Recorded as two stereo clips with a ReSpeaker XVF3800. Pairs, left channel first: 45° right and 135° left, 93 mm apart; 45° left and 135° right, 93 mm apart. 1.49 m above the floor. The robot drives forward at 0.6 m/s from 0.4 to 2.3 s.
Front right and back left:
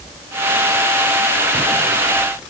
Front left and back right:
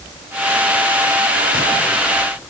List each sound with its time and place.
Only background noise.